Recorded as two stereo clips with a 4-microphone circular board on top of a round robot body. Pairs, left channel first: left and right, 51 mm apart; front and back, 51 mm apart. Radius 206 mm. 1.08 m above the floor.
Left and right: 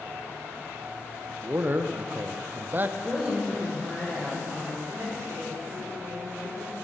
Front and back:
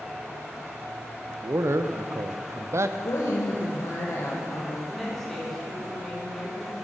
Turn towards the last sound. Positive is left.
turn(degrees=-85)